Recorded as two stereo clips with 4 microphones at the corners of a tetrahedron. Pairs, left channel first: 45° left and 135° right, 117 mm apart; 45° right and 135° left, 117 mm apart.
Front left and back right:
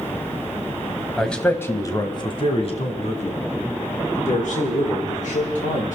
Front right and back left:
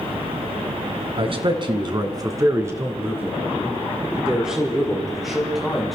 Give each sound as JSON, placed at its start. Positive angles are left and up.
{"t": 1.2, "sound": "a man speaking", "azimuth_deg": 135, "distance_m": 1.6}